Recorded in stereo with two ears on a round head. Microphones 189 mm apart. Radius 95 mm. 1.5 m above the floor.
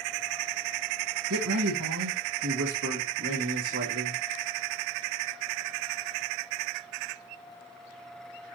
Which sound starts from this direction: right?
A man speaking, at 1.3 s.